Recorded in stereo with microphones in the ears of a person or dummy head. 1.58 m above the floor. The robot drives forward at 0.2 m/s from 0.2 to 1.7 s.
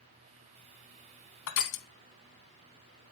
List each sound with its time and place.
1.5 s crushing: 65° left (ahead or behind), 0.7 m; by 1.9 s 60° left (ahead or behind), 0.8 m